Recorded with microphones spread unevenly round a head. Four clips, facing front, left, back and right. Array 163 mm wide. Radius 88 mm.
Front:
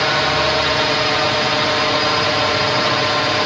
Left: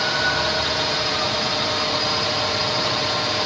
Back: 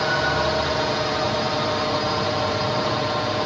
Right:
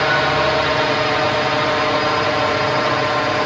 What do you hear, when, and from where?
0.0 s a drone: 50° right; by 3.5 s 45° right